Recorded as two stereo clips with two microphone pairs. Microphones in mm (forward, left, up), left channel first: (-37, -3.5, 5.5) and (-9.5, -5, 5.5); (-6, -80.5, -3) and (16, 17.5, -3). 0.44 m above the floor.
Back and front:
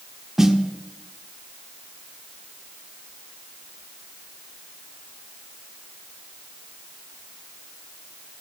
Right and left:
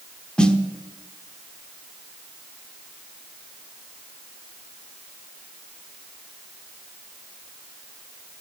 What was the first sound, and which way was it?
A snare drum, 50° right.